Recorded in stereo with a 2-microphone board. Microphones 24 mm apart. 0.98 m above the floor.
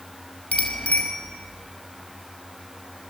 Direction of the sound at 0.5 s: 90° left.